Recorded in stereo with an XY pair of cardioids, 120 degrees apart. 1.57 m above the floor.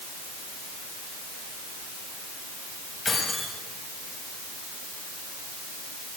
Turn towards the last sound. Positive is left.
turn(degrees=25)